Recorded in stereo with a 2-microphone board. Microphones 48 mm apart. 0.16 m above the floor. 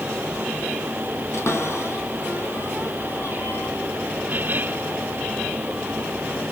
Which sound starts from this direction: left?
A cupboard door, at 1.3 s.